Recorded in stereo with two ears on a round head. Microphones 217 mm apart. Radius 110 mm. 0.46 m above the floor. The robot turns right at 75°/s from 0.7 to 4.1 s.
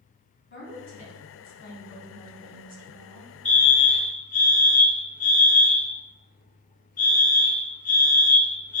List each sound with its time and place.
0.5 s a woman speaking: 50° left, 3 m; by 3.3 s 110° right, 3 m
3.5 s a fire alarm: 5° left, 2 m; by 8.8 s 55° left, 2 m